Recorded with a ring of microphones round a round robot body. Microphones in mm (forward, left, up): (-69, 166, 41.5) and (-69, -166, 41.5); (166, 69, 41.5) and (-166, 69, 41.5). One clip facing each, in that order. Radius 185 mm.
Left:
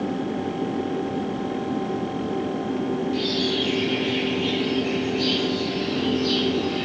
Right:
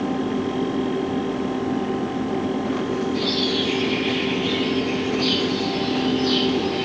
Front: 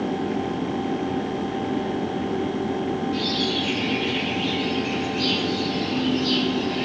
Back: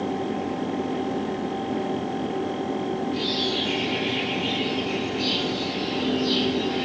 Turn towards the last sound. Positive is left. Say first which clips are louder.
# right 1 dB, front 2 dB
turn(degrees=40)